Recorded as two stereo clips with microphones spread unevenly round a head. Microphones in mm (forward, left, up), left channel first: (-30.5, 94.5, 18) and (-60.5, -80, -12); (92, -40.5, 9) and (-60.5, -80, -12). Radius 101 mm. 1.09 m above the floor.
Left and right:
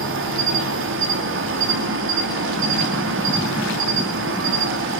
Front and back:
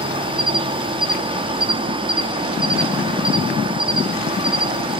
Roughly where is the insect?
Right.